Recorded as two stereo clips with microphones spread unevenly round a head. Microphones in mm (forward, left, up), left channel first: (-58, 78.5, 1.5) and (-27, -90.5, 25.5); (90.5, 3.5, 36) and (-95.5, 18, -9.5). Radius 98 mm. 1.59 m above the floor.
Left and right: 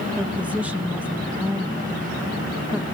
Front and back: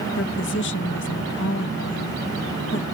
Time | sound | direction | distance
0.2 | a woman speaking | straight ahead | ?